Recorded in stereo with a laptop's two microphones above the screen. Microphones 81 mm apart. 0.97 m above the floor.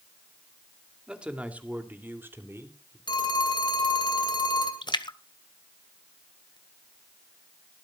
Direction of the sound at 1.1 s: 10° right (ahead or behind).